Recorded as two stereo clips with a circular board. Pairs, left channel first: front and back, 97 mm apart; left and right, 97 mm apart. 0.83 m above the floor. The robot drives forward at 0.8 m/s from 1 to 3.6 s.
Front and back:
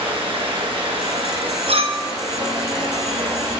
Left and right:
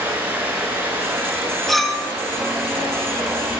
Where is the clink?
Straight behind, 0.8 m.